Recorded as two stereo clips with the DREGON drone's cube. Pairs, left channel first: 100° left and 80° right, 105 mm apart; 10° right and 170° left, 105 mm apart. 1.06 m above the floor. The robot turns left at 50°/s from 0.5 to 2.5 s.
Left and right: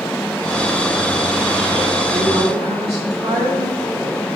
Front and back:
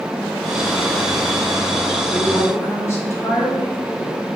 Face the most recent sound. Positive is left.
turn(degrees=-75)